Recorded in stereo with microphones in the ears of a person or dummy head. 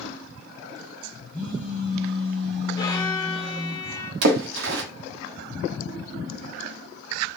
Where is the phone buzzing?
15° left (ahead or behind), 5 m.